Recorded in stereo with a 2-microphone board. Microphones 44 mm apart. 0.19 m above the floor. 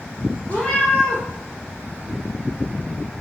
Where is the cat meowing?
25° left (ahead or behind), 1.5 m.